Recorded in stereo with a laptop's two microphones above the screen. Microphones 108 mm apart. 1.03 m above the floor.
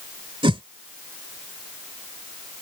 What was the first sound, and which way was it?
A whoosh, 55° right (ahead or behind).